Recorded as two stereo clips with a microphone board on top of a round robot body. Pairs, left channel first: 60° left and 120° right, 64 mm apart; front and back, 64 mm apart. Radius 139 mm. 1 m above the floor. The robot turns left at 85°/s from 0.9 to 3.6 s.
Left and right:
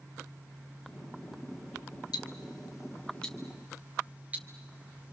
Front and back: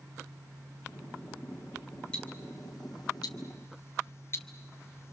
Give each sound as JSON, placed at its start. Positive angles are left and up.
{"t": 2.1, "sound": "ticking", "azimuth_deg": 75, "distance_m": 0.7}